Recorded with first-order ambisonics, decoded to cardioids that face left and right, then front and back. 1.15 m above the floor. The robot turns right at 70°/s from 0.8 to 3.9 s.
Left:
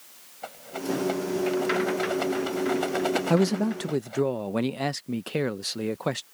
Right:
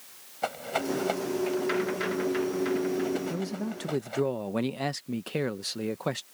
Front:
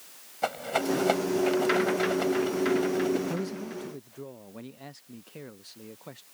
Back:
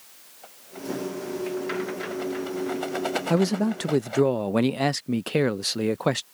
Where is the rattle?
30° right; by 4.3 s 170° right.